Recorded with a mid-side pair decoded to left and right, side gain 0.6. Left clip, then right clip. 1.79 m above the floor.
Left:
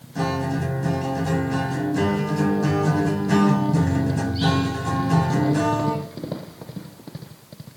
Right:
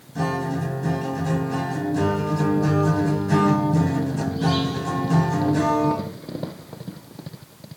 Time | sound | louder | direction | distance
0.1 | a guitar | even | 20° left | 0.9 m